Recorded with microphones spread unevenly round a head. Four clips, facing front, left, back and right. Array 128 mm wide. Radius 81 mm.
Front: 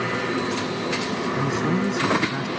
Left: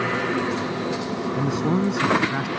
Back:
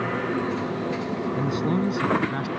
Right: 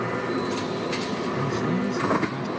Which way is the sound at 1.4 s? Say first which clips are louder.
Left 5 dB, front 1 dB; 90° left.